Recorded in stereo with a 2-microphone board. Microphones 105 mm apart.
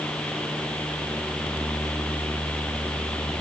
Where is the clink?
I don't hear a clink.